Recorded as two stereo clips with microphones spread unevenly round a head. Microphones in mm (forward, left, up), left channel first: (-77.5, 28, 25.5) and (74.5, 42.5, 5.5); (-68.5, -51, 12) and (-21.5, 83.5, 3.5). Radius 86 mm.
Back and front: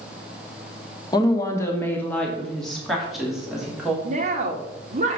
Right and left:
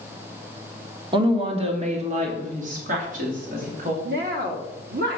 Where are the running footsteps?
I don't hear running footsteps.